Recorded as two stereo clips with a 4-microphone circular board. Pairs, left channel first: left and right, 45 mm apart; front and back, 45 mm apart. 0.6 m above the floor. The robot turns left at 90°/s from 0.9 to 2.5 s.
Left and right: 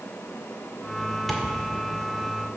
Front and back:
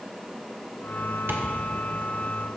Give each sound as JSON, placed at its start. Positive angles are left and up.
{"t": 1.3, "sound": "tapping", "azimuth_deg": 180, "distance_m": 1.7}